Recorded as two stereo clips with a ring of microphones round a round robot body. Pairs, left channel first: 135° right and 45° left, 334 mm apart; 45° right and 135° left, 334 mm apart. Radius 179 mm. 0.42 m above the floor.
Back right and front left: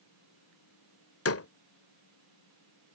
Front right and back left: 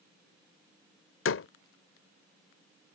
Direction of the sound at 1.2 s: 90° right.